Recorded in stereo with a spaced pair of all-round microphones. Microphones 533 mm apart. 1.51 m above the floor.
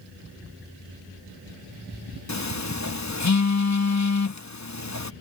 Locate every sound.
2.3 s a phone buzzing: 30° left (ahead or behind)